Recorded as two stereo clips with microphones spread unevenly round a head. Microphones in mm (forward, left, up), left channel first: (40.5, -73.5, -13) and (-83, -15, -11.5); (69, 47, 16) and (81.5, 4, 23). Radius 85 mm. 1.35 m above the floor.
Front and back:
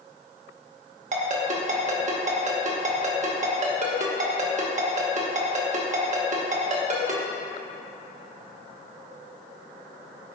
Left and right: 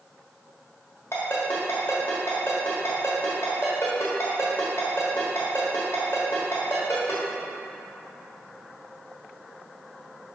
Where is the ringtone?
175° left, 1.1 m.